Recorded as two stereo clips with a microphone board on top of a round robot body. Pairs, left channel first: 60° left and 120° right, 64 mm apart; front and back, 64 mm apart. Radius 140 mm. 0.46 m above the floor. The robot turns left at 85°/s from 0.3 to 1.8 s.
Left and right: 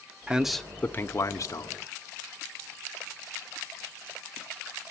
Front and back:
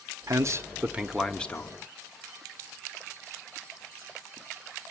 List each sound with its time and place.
0.3 s a man speaking: 170° left, 1.3 m; by 1.8 s 40° left, 1.3 m